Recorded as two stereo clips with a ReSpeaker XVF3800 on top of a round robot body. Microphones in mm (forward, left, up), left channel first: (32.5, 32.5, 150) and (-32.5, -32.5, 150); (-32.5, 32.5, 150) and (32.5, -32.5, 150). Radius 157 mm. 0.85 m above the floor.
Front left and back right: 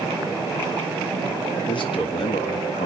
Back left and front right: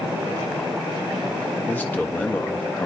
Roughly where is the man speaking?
Ahead left.